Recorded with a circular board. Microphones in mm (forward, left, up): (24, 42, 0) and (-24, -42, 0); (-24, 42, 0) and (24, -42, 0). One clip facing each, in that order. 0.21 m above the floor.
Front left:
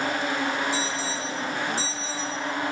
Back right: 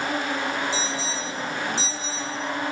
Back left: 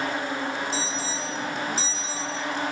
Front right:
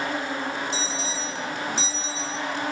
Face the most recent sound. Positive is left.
turn(degrees=170)